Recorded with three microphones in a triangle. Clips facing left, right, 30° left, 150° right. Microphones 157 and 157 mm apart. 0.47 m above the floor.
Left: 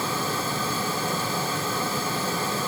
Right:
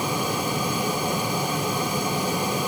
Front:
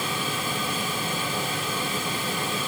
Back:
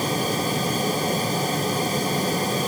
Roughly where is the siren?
I don't hear a siren.